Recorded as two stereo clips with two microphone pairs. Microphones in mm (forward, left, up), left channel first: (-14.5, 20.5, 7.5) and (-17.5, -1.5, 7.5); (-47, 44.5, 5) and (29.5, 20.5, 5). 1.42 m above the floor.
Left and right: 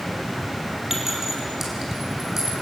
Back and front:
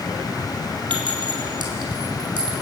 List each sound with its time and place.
0.9 s a clink: 25° right, 4 m